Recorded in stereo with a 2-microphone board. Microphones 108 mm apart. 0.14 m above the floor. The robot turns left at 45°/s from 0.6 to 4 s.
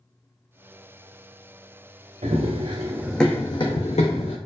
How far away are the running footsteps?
About 0.7 m.